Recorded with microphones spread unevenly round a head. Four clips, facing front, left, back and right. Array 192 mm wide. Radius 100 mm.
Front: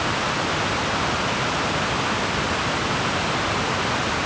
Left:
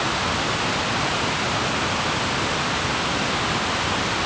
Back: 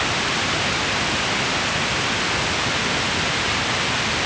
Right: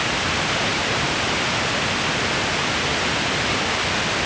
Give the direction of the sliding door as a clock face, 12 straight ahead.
No sliding door in this recording.